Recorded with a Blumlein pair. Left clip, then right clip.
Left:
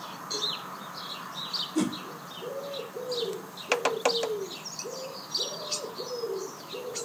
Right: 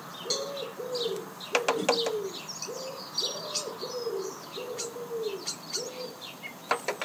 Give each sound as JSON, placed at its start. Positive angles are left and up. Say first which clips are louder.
{"t": 0.3, "sound": "a cowbell", "louder": "left 1 dB", "azimuth_deg": -50, "distance_m": 5.5}
{"t": 1.8, "sound": "a whoosh", "louder": "right 3 dB", "azimuth_deg": 40, "distance_m": 1.7}